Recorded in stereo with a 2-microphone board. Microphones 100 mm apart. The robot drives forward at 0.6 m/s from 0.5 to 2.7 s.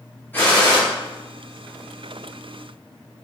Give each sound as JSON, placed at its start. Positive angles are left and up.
{"t": 0.3, "sound": "a gunshot", "side_deg": 20, "distance_m": 1.7}